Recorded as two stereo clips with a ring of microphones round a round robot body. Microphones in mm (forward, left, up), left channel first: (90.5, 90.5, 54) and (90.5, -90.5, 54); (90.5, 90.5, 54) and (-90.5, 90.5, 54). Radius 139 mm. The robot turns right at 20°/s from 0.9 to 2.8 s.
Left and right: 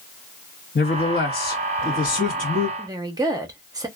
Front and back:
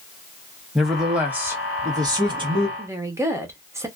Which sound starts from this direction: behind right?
A woman speaking, at 2.8 s.